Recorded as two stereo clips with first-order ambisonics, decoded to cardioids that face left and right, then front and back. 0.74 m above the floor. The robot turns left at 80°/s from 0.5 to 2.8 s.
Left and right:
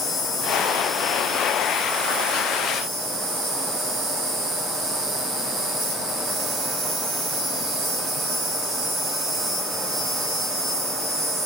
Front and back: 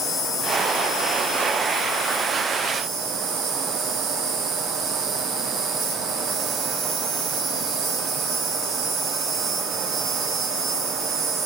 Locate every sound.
0.0 s an insect: 45° left, 4.5 m; by 11.5 s 135° right, 4.5 m